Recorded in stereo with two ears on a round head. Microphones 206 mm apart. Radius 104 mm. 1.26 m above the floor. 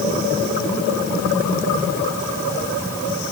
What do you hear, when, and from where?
Only background noise.